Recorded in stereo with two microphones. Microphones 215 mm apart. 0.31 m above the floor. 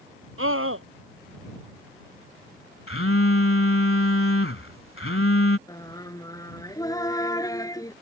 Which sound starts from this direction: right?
A scream, at 0.4 s.